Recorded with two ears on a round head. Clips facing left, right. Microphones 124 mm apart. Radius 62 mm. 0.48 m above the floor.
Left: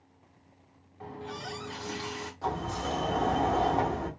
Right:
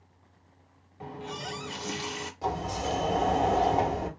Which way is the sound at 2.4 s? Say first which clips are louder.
Right 2 dB; 15° right (ahead or behind).